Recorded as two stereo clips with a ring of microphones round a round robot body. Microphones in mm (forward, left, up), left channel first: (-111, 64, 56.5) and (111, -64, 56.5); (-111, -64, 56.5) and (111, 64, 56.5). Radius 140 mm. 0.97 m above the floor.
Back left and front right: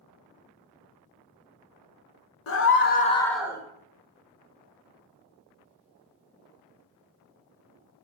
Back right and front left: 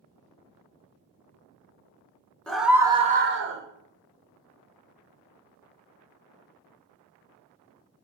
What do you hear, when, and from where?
2.5 s a scream: 125° left, 1.1 m; by 3.6 s 40° left, 0.8 m